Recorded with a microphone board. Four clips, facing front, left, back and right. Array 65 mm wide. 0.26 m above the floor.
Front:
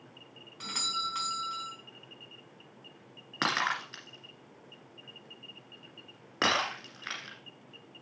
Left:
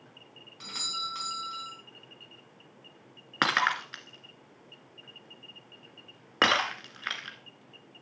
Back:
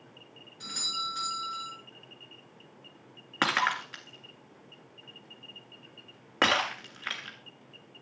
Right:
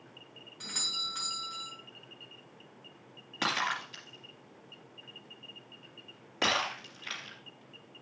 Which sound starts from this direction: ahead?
A doorbell, at 0.6 s.